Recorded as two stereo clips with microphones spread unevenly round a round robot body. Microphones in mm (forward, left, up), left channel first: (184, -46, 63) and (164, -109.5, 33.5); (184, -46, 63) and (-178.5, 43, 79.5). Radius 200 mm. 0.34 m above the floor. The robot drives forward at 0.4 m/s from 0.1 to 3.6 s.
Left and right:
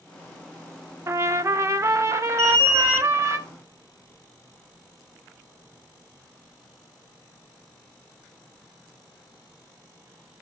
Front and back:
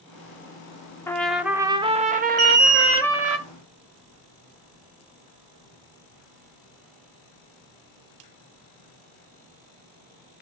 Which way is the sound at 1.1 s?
95° right.